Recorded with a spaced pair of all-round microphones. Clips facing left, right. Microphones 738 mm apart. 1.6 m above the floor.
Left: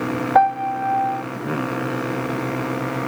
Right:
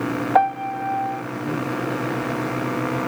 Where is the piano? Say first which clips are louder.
Left 2 dB; 60° right (ahead or behind).